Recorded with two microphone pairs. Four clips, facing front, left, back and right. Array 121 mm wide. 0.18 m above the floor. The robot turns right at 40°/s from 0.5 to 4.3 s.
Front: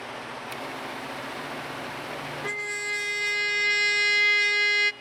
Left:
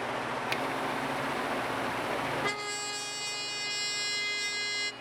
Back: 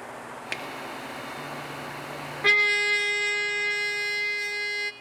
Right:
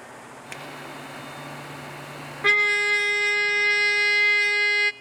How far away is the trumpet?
About 0.5 m.